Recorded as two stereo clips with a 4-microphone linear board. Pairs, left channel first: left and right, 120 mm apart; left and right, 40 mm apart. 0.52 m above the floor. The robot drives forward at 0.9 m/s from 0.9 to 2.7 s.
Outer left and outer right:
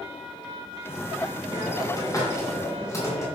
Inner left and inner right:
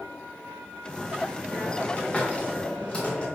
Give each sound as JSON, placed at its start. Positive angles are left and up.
{"t": 1.5, "sound": "a hiss", "side_deg": 35, "distance_m": 3.0}